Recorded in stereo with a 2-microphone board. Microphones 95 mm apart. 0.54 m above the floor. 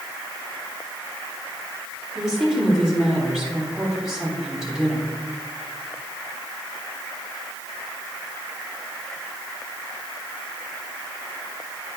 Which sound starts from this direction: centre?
A woman speaking, at 2.1 s.